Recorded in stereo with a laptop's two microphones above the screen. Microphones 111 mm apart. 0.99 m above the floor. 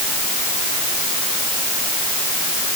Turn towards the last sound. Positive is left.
No sound to turn to.